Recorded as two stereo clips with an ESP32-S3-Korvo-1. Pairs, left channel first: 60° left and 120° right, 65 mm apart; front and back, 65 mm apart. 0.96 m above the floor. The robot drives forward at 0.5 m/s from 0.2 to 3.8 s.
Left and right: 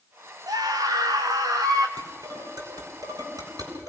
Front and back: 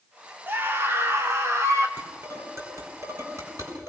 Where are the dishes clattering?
135° right, 6 m; by 3.9 s 140° right, 6.5 m.